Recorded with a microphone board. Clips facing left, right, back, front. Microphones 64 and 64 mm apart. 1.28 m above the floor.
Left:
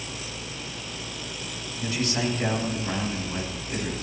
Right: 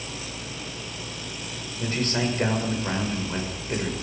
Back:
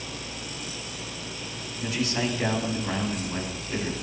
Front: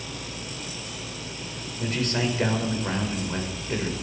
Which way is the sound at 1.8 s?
40° right.